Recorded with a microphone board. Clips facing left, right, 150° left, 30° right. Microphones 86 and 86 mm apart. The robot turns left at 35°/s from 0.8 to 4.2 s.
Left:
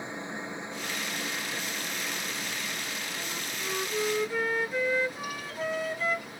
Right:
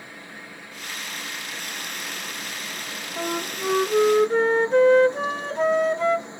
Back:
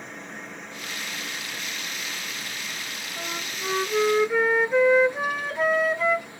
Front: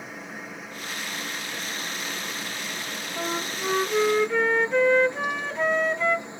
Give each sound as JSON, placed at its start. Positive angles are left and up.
{"t": 0.0, "sound": "a helicopter", "azimuth_deg": 50}
{"t": 3.2, "sound": "a flute", "azimuth_deg": -90}